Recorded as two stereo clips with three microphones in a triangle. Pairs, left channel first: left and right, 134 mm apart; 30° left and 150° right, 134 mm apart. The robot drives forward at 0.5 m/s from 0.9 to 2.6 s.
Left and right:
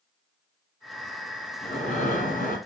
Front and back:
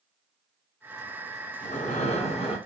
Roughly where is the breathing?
Ahead left.